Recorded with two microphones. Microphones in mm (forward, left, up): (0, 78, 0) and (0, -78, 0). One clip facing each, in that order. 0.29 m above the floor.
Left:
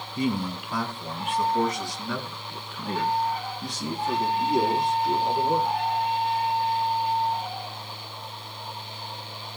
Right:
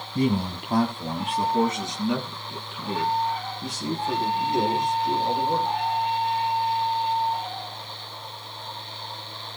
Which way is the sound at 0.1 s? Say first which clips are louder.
Right 3 dB; 60° right (ahead or behind).